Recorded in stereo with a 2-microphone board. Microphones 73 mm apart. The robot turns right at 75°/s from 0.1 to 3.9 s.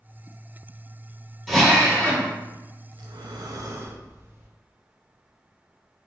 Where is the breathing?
105° right, 0.5 m; by 4.5 s 35° right, 0.5 m.